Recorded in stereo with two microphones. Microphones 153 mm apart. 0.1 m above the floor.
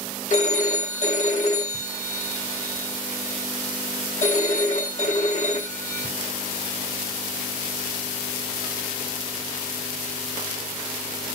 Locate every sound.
0.3 s a phone ringing: 55° left (ahead or behind), 3 m